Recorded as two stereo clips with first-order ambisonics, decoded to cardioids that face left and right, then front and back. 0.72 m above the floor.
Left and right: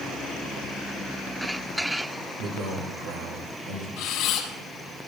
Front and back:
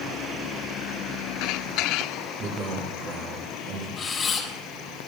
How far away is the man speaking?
About 2.5 m.